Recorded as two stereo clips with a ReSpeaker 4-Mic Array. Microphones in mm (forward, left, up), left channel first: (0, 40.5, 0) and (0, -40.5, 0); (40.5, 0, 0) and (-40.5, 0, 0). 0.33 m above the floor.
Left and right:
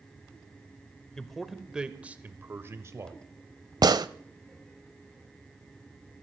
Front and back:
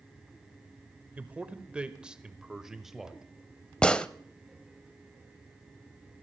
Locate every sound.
1.2 s a man speaking: 160° left, 1.1 m; by 3.2 s 95° right, 1.4 m
3.8 s a gunshot: 75° right, 0.6 m